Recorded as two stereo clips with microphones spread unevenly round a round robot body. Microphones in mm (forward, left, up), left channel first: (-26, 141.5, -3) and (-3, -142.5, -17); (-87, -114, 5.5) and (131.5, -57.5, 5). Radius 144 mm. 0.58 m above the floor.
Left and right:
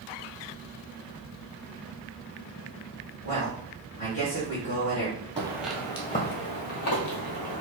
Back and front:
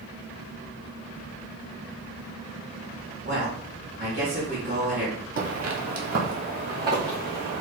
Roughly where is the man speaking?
Left.